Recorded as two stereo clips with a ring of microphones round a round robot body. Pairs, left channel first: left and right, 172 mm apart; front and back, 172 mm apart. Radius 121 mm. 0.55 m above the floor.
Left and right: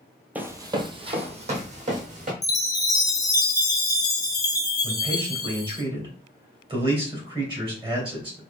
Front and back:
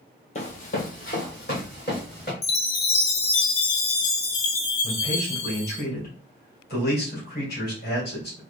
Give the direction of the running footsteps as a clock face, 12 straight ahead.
12 o'clock.